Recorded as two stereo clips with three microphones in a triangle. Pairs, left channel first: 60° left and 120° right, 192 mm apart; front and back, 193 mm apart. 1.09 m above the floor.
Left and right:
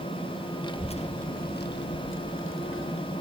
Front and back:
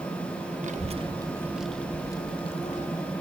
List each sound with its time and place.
0.6 s a child speaking: 125° left, 1.2 m; by 3.0 s 50° left, 1.4 m